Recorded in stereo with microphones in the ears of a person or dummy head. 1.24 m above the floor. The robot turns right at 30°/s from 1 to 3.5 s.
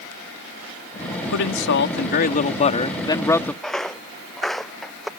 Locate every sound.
1.3 s a man speaking: 105° left; by 3.5 s 170° left
3.6 s footsteps: centre (ahead or behind)